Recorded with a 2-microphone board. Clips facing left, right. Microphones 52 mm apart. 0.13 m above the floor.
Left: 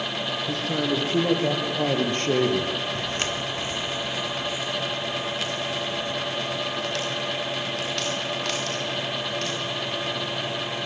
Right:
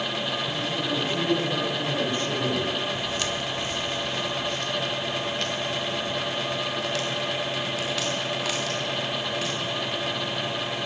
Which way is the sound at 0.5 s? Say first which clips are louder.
Left 2 dB; 75° left (ahead or behind).